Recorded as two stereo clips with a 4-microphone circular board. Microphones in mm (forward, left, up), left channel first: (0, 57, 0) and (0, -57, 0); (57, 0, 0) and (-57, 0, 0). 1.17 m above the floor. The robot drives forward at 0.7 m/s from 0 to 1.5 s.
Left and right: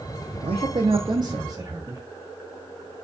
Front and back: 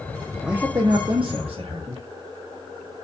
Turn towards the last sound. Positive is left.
turn(degrees=-150)